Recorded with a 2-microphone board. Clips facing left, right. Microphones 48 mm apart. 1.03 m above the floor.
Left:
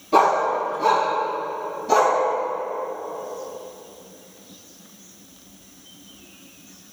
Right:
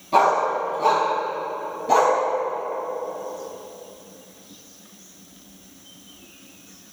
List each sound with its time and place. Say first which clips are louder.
0.1 s a dog barking: left 1 dB; 5° right (ahead or behind), 4 m; by 2.2 s 20° right (ahead or behind), 3 m